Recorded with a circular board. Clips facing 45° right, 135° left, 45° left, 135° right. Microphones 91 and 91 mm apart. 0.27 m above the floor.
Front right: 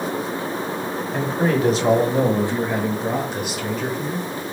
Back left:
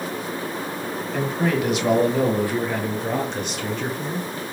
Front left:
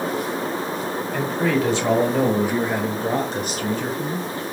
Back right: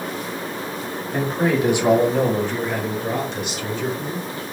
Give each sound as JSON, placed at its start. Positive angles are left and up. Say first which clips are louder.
{"t": 1.1, "sound": "a man speaking", "louder": "front right 2 dB, back right 2 dB", "azimuth_deg": -85, "distance_m": 1.5}